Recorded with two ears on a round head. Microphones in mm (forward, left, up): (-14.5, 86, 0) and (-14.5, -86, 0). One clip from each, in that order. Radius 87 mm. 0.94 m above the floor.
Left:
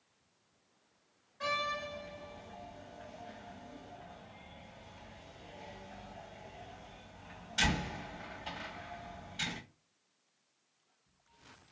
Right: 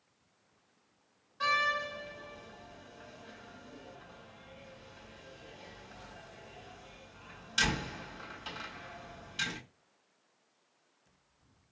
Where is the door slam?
85° right, 2.5 m.